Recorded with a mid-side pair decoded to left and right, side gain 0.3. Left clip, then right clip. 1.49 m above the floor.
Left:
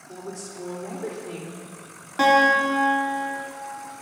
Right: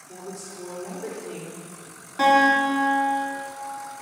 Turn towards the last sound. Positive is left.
turn(degrees=55)